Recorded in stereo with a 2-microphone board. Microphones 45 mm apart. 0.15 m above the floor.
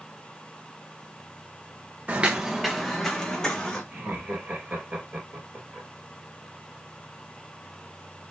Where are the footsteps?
40° right (ahead or behind), 0.5 m; by 3.8 s 15° left (ahead or behind), 1.7 m.